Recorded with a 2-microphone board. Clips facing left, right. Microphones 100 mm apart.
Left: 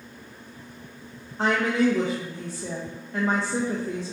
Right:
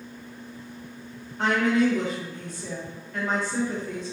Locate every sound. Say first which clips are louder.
1.4 s a woman speaking: even; 25° left (ahead or behind), 0.6 m